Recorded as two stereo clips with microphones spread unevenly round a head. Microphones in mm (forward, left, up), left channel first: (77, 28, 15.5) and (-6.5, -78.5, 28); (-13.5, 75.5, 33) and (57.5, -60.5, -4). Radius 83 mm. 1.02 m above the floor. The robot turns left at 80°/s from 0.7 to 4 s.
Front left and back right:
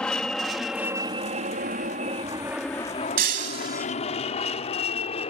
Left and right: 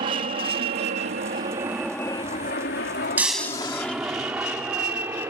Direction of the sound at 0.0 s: 30° right.